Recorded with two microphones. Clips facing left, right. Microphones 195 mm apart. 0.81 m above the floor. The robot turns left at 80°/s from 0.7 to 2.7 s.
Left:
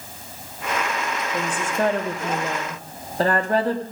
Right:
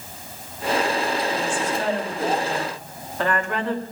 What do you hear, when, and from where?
1.3 s a woman speaking: 150° left, 1.6 m; by 3.8 s 40° left, 1.6 m